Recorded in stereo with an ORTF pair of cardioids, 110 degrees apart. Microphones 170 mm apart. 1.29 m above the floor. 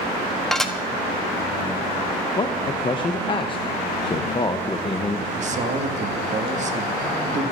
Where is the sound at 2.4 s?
30° left, 1.1 m.